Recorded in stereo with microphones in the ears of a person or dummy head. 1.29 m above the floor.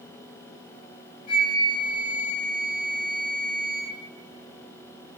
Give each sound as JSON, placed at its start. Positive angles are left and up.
{"t": 1.3, "sound": "a flute", "side_deg": 30, "distance_m": 1.3}